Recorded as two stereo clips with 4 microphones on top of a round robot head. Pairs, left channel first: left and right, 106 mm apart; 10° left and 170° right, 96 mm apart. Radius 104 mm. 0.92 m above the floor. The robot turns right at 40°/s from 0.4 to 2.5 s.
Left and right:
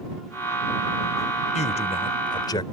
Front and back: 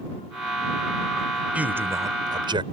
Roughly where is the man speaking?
Left.